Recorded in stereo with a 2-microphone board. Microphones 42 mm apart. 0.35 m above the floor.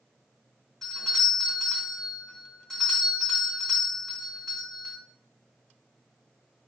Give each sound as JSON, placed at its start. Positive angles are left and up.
{"t": 0.8, "sound": "a doorbell", "side_deg": 15, "distance_m": 1.8}